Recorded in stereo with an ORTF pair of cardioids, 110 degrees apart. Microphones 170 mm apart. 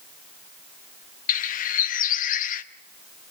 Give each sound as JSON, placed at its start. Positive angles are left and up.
{"t": 1.3, "sound": "a bird", "azimuth_deg": 55, "distance_m": 0.8}